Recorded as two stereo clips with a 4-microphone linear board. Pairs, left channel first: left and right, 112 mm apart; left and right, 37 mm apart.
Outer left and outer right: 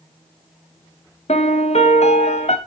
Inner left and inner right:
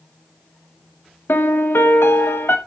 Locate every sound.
1.3 s a piano: 75° left (ahead or behind), 1.0 m